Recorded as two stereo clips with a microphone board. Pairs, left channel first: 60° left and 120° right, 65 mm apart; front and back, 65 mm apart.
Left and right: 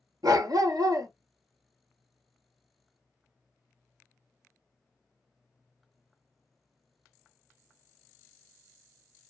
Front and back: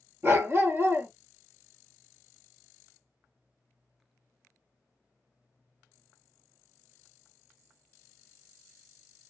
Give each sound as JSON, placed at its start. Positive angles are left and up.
{"t": 0.2, "sound": "a dog barking", "azimuth_deg": -125, "distance_m": 0.7}